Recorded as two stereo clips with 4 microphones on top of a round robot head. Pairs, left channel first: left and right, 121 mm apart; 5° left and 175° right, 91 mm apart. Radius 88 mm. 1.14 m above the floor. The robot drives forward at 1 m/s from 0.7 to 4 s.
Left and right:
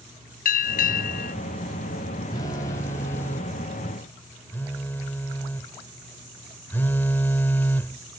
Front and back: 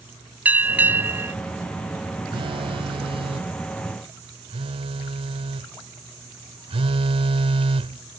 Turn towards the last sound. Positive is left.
turn(degrees=170)